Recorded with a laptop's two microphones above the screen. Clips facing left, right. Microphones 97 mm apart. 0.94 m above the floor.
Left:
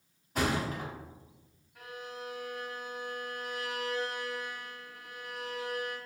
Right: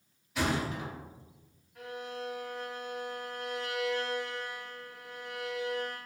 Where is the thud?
45° left (ahead or behind), 0.8 m.